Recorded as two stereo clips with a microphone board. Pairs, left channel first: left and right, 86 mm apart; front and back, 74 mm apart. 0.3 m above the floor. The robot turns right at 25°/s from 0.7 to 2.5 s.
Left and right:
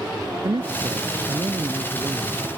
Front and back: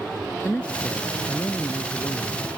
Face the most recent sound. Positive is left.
turn(degrees=-30)